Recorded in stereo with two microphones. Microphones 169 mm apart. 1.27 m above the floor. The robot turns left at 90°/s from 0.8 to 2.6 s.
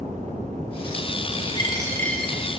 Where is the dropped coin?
65° left, 1.0 m; by 2.4 s 10° right, 1.0 m.